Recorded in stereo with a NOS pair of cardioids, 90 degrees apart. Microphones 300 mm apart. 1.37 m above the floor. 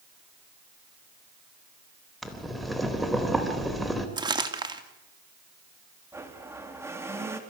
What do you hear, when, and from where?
2.2 s boiling: straight ahead, 3.5 m
4.2 s crumpling: 15° right, 2.5 m
6.1 s a blender: 10° right, 3.5 m